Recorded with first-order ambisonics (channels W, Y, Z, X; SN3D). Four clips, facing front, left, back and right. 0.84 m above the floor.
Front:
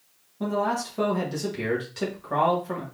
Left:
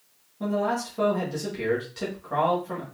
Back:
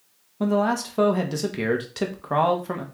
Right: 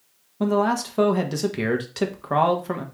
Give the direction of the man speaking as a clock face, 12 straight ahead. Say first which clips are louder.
Right 5 dB, back 4 dB; 4 o'clock.